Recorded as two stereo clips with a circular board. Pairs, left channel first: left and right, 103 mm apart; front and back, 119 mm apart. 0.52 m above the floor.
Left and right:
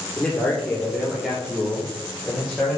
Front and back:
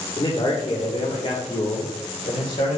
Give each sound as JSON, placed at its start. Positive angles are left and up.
{"t": 0.2, "sound": "a man speaking", "azimuth_deg": 15, "distance_m": 1.8}